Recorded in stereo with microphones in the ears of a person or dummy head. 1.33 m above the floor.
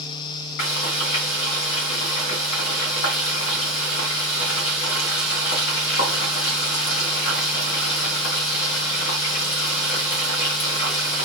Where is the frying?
55° left (ahead or behind), 2 m.